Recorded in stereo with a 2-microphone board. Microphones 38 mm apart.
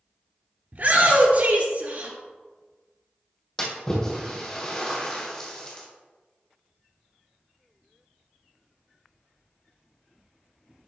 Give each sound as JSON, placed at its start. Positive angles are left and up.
{"t": 0.7, "sound": "a shout", "side_deg": -50, "distance_m": 1.9}
{"t": 3.6, "sound": "a splash", "side_deg": 20, "distance_m": 2.0}